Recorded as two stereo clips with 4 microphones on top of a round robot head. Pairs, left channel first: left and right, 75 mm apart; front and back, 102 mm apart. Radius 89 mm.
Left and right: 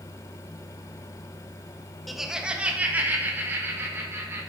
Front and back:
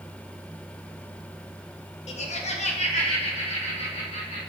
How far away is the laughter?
About 1.2 m.